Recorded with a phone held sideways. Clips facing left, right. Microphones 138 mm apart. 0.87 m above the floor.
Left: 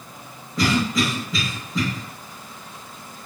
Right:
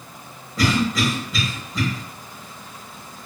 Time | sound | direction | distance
0.6 | a cough | centre (ahead or behind) | 1.2 m